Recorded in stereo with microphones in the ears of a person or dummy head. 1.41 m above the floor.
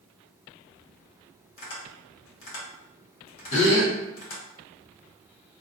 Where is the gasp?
35° left (ahead or behind), 0.8 m.